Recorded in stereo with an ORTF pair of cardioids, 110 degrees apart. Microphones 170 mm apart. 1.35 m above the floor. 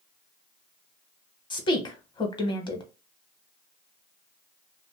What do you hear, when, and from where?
1.5 s a woman speaking: 25° left, 1.0 m